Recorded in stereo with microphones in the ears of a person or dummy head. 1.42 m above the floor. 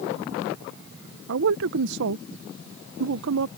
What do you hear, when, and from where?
1.3 s a man speaking: 70° right (ahead or behind)